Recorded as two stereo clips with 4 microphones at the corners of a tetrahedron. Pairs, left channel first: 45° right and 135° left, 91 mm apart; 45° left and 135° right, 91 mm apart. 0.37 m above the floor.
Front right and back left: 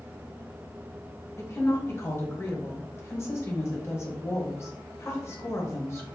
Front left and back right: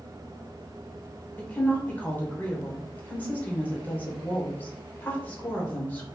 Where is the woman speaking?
15° right, 1.2 m.